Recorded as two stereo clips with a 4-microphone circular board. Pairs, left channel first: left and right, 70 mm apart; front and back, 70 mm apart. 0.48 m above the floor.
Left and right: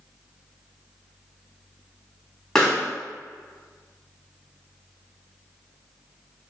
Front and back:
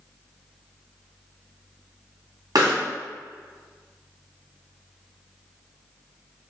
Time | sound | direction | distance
2.5 | a pop | 170° left | 2.5 m